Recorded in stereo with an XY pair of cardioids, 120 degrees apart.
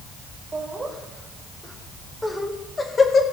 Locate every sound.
0.5 s laughter: 25° right, 3.5 m; by 3.2 s 40° left, 1.9 m